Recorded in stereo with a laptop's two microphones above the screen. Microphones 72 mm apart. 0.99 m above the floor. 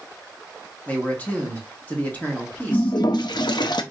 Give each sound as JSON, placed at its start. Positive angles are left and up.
{"t": 0.9, "sound": "a man speaking", "side_deg": 20, "distance_m": 1.5}
{"t": 2.7, "sound": "a toilet flushing", "side_deg": 75, "distance_m": 0.6}